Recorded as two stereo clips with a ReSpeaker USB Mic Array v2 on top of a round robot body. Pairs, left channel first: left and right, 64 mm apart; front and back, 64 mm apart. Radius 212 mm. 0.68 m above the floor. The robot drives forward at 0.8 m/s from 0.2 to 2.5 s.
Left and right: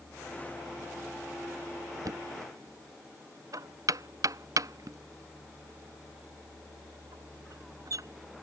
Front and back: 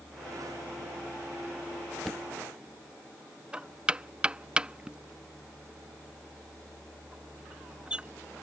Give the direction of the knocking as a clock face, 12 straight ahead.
3 o'clock.